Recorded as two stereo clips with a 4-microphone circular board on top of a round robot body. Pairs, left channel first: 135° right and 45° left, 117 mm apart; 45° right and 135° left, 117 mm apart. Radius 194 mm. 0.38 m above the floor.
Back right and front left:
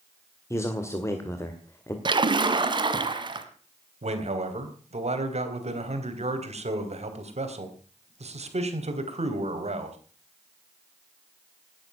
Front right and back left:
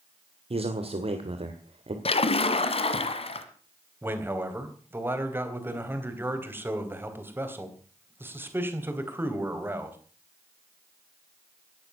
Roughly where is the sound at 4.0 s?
Ahead left.